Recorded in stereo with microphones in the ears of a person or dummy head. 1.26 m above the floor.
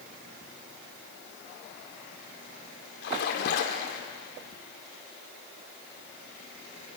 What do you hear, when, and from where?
3.0 s a splash: 65° left (ahead or behind), 2.5 m